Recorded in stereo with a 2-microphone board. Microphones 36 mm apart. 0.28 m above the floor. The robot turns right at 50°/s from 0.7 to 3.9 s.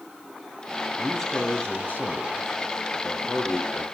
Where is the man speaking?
5° right, 3.5 m; by 3.8 s 140° left, 3.5 m.